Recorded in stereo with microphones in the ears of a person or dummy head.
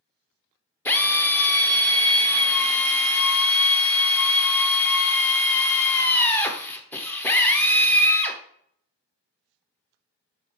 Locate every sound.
0.8 s a drill: 10° left (ahead or behind), 0.8 m